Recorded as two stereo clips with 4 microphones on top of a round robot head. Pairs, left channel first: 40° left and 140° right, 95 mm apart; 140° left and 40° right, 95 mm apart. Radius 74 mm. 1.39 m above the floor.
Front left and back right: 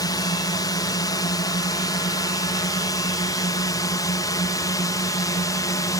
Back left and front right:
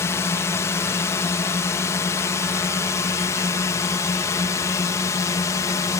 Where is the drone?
80° left; by 6.0 s 85° left.